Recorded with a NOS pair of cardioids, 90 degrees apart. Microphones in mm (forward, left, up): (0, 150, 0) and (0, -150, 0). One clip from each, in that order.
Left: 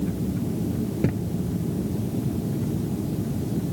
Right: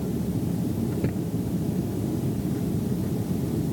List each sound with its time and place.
1.0 s a thud: 25° left